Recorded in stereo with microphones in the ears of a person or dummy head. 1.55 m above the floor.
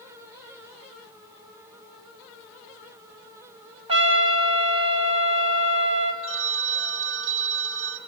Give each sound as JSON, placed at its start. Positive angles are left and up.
{"t": 3.9, "sound": "a trumpet", "side_deg": -30, "distance_m": 1.4}
{"t": 6.2, "sound": "a phone ringing", "side_deg": -70, "distance_m": 1.7}